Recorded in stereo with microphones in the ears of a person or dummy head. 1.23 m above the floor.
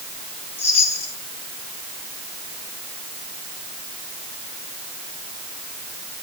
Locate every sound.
0.6 s a chime: 35° left (ahead or behind), 7 m